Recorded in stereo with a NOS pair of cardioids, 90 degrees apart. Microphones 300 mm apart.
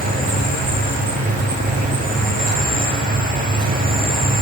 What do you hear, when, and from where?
0.0 s an insect: 30° right, 0.8 m